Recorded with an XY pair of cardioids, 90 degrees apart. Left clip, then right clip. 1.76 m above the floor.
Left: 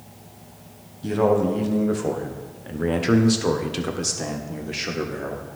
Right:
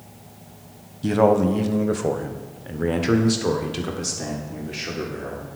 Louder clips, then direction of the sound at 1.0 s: Right 2 dB; 45° right.